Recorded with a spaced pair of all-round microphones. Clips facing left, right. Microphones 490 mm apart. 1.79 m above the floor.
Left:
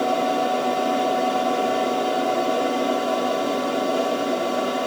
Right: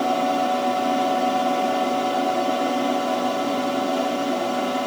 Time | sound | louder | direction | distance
0.0 | a fan | even | 20° right (ahead or behind) | 3.5 m